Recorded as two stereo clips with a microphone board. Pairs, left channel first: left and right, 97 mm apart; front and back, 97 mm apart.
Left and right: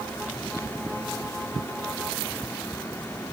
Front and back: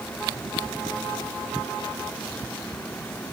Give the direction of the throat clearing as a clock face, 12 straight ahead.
I don't hear throat clearing.